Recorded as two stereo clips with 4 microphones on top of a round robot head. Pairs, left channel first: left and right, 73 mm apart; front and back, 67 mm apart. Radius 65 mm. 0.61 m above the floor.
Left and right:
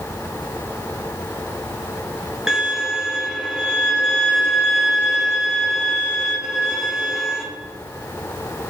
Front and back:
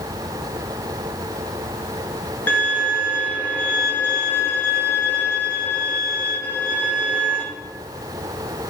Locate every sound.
2.5 s a violin: 10° right, 1.2 m